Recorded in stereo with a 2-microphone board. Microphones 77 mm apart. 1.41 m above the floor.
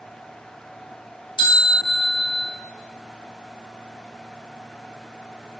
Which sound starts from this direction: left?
A bell, at 1.4 s.